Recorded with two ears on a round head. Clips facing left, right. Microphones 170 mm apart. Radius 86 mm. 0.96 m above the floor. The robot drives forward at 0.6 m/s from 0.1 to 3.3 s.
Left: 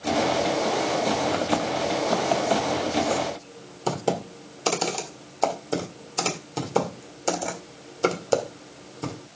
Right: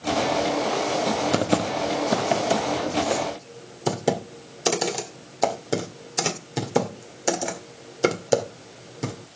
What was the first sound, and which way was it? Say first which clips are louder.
Typing on a keyboard: right 2 dB; 45° right (ahead or behind).